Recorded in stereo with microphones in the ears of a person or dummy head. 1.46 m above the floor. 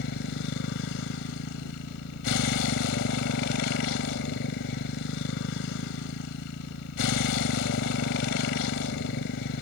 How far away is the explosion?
I don't hear an explosion.